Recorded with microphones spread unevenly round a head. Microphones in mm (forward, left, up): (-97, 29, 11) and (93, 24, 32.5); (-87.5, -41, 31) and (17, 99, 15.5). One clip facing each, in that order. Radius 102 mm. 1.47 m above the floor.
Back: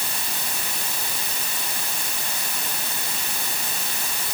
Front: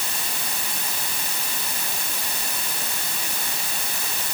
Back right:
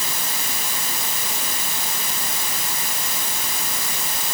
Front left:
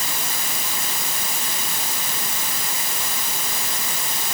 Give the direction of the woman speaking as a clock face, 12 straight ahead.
I don't hear a woman speaking.